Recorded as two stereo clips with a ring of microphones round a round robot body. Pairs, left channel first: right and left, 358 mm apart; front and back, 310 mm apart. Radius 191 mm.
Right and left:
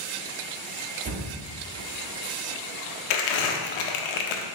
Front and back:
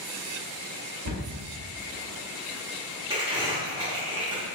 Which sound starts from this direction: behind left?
A cupboard door, at 1.1 s.